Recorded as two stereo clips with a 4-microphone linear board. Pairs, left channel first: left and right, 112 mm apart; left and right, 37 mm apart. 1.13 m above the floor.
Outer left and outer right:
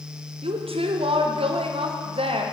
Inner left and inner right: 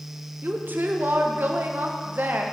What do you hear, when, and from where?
0.4 s a woman speaking: 60° right (ahead or behind), 0.7 m